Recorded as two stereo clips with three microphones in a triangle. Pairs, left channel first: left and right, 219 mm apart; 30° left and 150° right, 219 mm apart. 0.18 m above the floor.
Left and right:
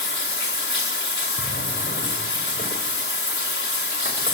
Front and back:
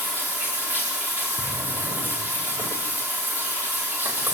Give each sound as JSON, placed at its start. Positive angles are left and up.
{"t": 0.0, "sound": "running water", "azimuth_deg": 125, "distance_m": 4.0}
{"t": 1.4, "sound": "a drawer", "azimuth_deg": 140, "distance_m": 6.5}